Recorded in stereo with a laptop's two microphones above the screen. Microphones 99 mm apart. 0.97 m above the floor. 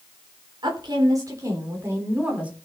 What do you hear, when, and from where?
0.6 s a woman speaking: 50° right (ahead or behind), 3.5 m; by 2.5 s 10° right (ahead or behind), 3.5 m